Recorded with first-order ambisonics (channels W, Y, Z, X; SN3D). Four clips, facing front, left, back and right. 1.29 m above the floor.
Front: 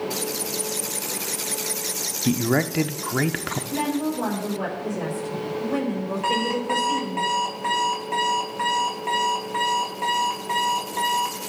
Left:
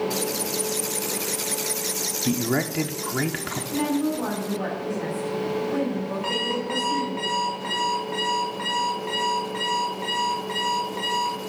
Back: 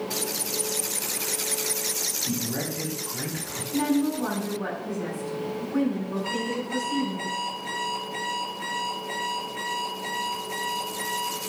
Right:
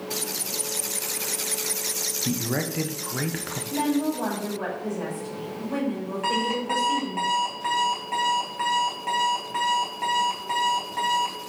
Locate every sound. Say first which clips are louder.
2.2 s a man speaking: left 5 dB, front 8 dB; 10° left, 0.8 m
3.7 s a woman speaking: even, back 2 dB; 25° right, 5.5 m
6.2 s an alarm clock: right 3 dB, front 6 dB; 35° right, 6 m